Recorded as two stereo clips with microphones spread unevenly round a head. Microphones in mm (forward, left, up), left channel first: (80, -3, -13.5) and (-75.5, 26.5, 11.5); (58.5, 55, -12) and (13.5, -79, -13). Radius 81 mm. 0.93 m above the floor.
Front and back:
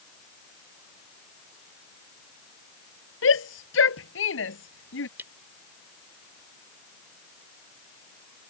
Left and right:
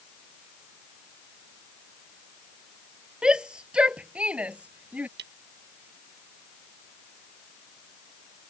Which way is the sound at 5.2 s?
115° right.